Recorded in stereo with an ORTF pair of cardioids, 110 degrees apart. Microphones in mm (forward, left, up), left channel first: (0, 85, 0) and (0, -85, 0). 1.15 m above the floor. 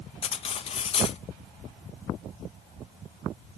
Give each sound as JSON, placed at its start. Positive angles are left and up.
{"t": 0.2, "sound": "cutlery clinking", "azimuth_deg": 35, "distance_m": 0.7}